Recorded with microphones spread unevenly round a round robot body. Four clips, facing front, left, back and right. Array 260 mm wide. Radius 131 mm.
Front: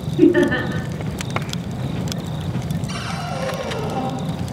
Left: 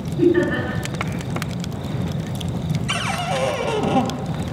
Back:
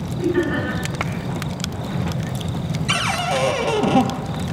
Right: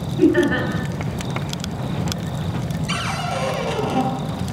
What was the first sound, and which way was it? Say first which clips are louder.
Laughter: right 1 dB, front 6 dB; 5° left.